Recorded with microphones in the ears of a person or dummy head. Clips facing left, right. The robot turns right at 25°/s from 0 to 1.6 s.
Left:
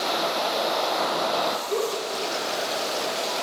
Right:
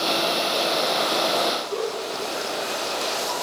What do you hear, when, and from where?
1.7 s a giggle: 35° left (ahead or behind), 4.5 m